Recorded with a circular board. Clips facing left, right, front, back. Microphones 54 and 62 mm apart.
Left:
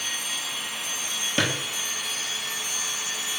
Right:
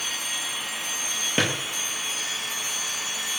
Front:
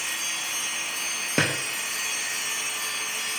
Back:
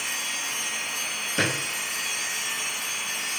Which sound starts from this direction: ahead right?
A drawer, at 1.4 s.